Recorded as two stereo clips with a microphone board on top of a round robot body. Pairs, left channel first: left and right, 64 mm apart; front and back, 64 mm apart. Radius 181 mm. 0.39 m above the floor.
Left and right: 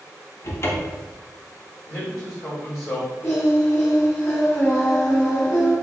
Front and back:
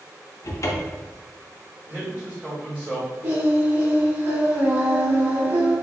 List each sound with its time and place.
0.4 s a cupboard door: 40° left, 0.6 m
1.9 s a man speaking: 125° left, 1.9 m
3.2 s singing: 135° left, 1.4 m